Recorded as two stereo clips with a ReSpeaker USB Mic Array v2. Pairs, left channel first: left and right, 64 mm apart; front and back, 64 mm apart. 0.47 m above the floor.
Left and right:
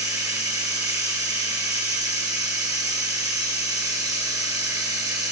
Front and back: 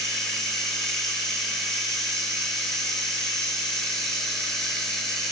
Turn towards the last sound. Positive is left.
turn(degrees=-85)